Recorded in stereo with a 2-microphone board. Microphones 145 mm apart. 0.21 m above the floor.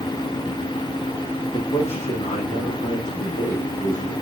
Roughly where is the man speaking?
Left.